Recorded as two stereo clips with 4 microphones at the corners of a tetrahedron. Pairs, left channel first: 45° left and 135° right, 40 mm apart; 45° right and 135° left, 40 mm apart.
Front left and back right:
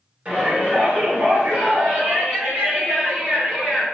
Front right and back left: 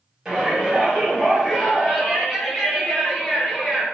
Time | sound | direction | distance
0.2 | a shout | 145° right | 2.0 m